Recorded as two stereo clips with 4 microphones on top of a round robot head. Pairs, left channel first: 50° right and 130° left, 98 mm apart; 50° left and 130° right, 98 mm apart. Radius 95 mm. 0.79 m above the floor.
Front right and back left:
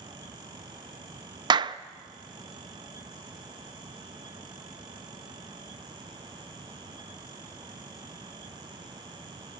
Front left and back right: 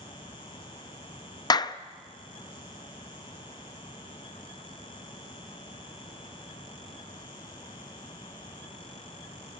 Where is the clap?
95° left, 0.6 m.